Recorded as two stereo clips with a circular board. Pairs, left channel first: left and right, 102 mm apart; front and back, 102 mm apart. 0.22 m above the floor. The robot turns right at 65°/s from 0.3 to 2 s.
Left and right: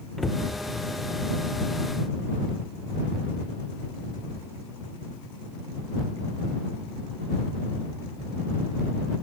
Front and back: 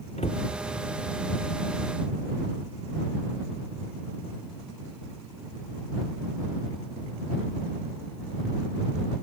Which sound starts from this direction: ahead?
A cupboard door, at 0.2 s.